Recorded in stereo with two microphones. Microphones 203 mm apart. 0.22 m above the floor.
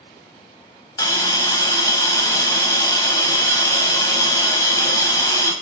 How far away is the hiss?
About 0.8 m.